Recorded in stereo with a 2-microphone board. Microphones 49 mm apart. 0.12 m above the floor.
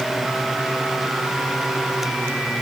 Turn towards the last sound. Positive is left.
No sound to turn to.